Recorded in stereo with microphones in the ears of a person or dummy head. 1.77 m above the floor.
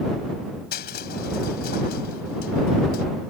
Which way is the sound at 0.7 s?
55° left (ahead or behind).